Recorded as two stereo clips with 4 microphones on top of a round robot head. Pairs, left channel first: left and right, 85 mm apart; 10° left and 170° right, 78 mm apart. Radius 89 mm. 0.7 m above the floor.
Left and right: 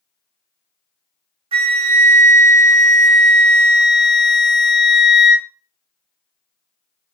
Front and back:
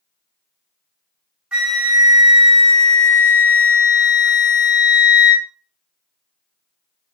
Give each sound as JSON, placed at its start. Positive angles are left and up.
{"t": 1.5, "sound": "a flute", "azimuth_deg": -90, "distance_m": 0.5}